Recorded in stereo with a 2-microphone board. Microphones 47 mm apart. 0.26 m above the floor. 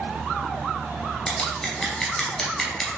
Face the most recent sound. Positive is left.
turn(degrees=15)  # may be behind; listen again after turning